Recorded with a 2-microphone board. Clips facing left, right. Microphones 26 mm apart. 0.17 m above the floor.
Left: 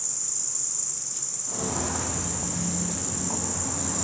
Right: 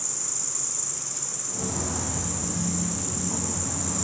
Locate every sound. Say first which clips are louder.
0.0 s an insect: right 1 dB; 5° left (ahead or behind), 2.5 m
1.5 s footsteps: left 2 dB; 55° left (ahead or behind), 3.5 m; by 4.0 s 60° left (ahead or behind), 5 m